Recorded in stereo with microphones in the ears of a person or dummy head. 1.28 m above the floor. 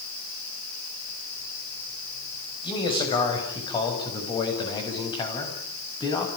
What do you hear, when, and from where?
2.6 s a man speaking: 25° left (ahead or behind), 6.5 m; by 6.3 s 20° left (ahead or behind), 8 m